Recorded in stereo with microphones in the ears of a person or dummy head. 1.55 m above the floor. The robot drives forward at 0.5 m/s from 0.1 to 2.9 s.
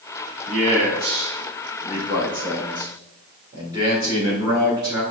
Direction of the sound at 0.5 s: 45° right (ahead or behind).